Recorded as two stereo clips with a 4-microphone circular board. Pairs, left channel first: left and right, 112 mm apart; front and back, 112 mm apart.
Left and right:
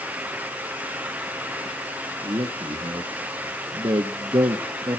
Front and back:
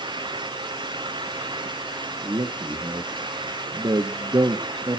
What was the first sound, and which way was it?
A man speaking, 135° right.